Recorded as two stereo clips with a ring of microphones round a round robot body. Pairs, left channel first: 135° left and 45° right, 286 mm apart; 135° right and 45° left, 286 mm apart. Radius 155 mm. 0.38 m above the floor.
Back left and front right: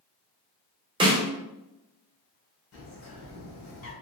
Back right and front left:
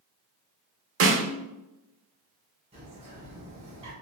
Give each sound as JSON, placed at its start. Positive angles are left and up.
{"t": 1.0, "sound": "a snare drum", "azimuth_deg": 25, "distance_m": 0.6}
{"t": 2.7, "sound": "a bird", "azimuth_deg": 110, "distance_m": 1.2}